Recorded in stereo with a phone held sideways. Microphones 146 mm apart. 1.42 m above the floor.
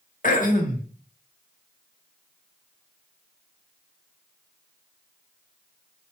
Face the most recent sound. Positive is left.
turn(degrees=70)  # may be behind; listen again after turning